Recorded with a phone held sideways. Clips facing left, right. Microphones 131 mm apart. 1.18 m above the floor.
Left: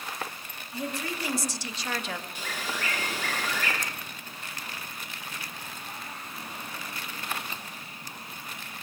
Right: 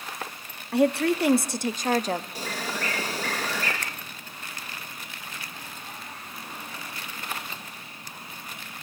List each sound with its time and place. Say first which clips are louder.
0.7 s a woman speaking: right 13 dB; 75° right (ahead or behind), 1.8 m; by 2.2 s 35° right (ahead or behind), 1.5 m
2.4 s a bird: right 3 dB; 40° right (ahead or behind), 7 m
3.8 s a finger snap: even; 70° right (ahead or behind), 0.9 m